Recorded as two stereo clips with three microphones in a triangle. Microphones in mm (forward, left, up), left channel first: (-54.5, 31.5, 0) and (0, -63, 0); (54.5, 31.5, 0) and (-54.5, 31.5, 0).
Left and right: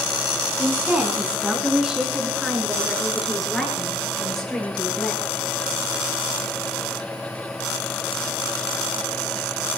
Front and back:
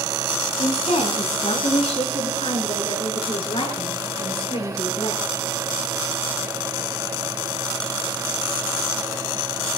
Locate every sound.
0.6 s a woman speaking: 10° left, 3.5 m; by 5.2 s 35° left, 7.5 m